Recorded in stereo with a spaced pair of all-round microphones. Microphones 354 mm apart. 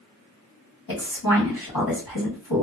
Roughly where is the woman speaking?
Left.